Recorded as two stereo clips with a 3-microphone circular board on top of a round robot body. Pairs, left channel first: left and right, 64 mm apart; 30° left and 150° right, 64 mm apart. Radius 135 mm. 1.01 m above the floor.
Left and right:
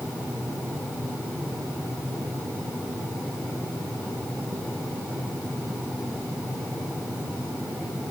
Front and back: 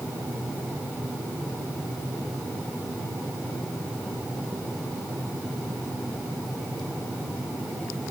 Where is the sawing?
I don't hear sawing.